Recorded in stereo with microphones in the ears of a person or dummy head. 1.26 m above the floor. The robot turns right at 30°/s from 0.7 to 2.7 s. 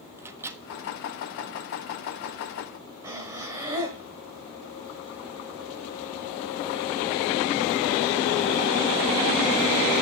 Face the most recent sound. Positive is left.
turn(degrees=-10)  # may be behind; listen again after turning